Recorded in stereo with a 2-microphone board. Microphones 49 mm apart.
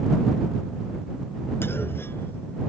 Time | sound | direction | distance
1.6 | a clunk | 55° left (ahead or behind) | ?